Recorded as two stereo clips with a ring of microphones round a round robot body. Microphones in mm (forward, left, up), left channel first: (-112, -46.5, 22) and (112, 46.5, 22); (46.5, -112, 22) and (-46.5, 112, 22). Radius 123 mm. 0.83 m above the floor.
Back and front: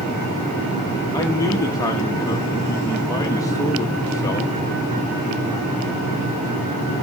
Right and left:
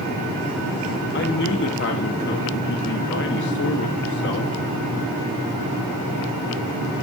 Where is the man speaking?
85° right, 0.9 m.